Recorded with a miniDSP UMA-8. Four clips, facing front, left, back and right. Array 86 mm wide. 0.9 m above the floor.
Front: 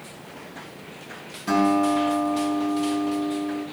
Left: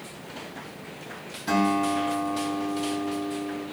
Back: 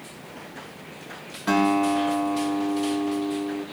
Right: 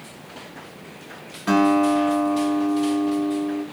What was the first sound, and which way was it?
A guitar, 130° right.